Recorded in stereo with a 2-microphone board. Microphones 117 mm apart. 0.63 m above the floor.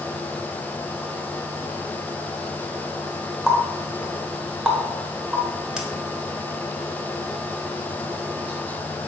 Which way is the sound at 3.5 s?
5° right (ahead or behind).